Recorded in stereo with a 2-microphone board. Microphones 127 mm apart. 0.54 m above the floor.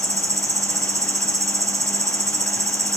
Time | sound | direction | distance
0.0 | an insect | 25° right (ahead or behind) | 1.5 m